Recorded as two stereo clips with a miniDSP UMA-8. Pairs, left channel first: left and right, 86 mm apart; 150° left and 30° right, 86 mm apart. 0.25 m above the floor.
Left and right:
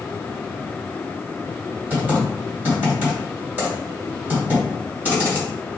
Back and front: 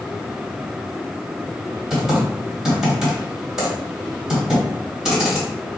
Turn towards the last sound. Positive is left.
turn(degrees=-100)